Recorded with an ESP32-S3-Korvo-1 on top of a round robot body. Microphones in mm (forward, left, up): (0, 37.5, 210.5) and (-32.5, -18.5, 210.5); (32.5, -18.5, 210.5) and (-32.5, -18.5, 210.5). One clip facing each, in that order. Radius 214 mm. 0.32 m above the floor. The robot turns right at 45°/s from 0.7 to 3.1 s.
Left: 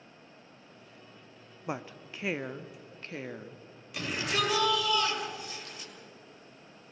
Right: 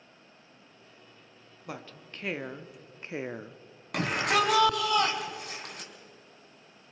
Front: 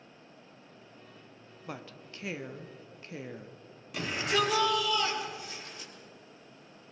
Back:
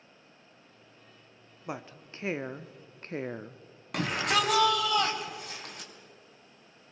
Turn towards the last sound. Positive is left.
turn(degrees=-150)